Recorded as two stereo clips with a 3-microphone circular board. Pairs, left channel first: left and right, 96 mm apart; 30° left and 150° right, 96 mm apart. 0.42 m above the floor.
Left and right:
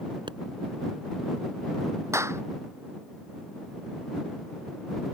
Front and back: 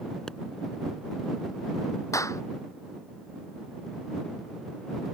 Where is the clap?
30° right.